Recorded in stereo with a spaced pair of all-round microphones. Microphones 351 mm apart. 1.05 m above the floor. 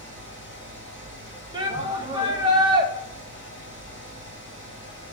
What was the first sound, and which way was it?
A fan, 30° left (ahead or behind).